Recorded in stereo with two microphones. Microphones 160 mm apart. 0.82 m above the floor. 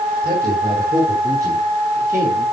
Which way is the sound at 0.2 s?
20° right (ahead or behind).